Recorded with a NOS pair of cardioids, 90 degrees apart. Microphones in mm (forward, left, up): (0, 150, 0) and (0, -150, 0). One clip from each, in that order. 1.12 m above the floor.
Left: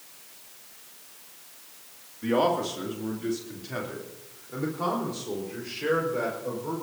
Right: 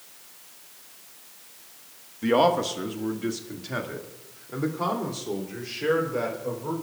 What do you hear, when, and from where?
2.2 s a man speaking: 35° right, 1.9 m; by 6.7 s 20° right, 4.5 m